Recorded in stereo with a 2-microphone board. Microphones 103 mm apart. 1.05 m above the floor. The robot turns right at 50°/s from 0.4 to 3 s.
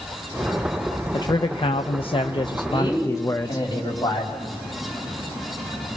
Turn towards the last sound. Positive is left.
turn(degrees=45)  # may be behind; listen again after turning